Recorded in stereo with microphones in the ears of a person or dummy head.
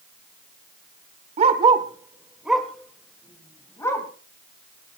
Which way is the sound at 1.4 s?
40° right (ahead or behind).